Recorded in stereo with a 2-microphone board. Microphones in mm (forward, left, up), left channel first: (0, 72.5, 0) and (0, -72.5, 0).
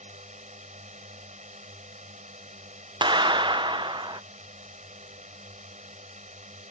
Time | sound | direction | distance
0.0 | a drone | 55° right (ahead or behind) | ?
3.0 | a clap | 35° right (ahead or behind) | ?